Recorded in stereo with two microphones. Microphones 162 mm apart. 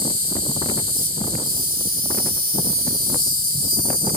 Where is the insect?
65° right (ahead or behind), 3 m.